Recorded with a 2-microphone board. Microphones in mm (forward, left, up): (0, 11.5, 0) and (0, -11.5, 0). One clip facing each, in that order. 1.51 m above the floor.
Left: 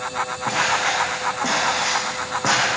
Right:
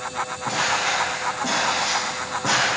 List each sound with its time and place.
0.5 s footsteps: 50° left (ahead or behind), 5 m; by 2.7 s 45° left (ahead or behind), 4 m